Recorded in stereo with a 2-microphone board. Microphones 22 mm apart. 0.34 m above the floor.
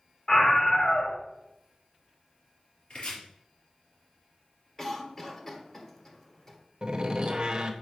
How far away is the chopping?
About 4 m.